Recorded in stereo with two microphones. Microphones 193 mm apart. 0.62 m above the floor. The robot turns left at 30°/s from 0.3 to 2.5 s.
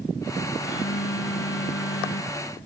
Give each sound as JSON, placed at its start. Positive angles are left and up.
{"t": 0.6, "sound": "a phone buzzing", "azimuth_deg": 115}